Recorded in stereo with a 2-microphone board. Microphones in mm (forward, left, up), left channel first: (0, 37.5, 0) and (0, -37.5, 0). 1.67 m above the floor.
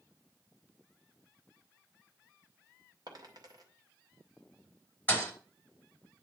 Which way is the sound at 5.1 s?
20° left (ahead or behind).